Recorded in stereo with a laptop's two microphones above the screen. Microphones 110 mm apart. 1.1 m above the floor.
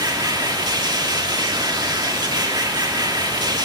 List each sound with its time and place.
0.0 s a machine running: 40° right (ahead or behind), 1.5 m